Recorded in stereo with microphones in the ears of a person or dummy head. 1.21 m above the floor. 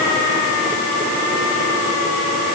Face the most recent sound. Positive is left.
No sound to turn to.